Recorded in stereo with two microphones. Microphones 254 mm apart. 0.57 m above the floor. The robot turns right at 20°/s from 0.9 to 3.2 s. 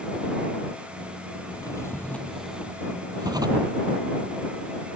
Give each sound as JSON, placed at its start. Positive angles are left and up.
{"t": 1.5, "sound": "a drawer", "azimuth_deg": 160}